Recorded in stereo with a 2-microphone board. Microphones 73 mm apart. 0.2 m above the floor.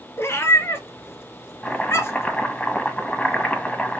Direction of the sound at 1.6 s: 15° left (ahead or behind).